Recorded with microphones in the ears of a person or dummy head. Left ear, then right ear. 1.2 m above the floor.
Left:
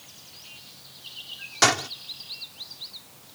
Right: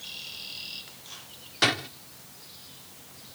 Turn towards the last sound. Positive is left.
turn(degrees=45)  # may be behind; listen again after turning